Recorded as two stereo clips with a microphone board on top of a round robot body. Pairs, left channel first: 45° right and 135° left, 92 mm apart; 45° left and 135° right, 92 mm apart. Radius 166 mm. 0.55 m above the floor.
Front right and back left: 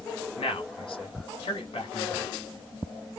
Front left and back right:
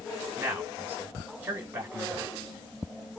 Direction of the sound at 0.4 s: 70° right.